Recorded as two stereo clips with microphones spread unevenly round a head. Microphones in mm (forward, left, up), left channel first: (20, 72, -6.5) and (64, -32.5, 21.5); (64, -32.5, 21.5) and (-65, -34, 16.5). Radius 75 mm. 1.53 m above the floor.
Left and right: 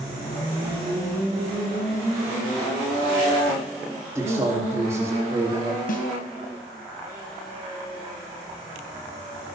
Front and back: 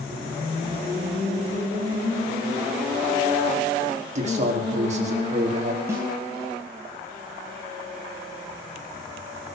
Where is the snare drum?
105° left, 3.5 m.